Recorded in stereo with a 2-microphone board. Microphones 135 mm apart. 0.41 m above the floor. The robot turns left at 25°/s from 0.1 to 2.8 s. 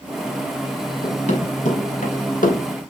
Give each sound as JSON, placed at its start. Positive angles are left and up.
{"t": 1.0, "sound": "running footsteps", "side_deg": 55, "distance_m": 6.0}